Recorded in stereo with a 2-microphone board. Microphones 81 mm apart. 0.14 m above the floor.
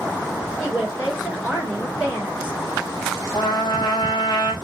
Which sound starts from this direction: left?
A trumpet, at 3.3 s.